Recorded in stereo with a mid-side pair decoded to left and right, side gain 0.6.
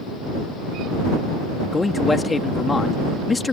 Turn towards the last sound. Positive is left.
turn(degrees=20)